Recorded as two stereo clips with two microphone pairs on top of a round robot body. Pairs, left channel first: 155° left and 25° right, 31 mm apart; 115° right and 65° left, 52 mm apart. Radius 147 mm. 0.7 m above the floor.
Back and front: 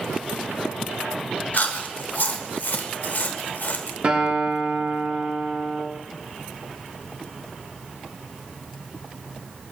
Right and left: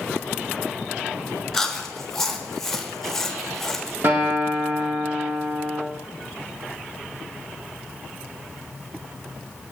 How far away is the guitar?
About 2 m.